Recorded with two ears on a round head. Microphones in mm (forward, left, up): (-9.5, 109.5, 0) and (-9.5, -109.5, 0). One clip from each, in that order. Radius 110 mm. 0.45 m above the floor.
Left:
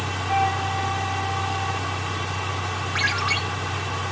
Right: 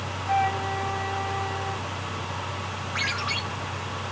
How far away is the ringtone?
About 3 m.